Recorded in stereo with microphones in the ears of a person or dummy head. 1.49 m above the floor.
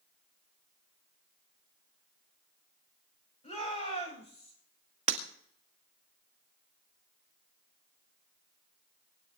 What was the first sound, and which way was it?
A shout, 35° left (ahead or behind).